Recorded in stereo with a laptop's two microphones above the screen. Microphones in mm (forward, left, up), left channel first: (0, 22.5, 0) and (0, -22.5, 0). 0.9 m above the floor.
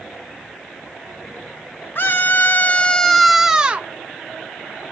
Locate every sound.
1.9 s a scream: 50° left (ahead or behind), 0.9 m; by 3.9 s 25° right (ahead or behind), 0.7 m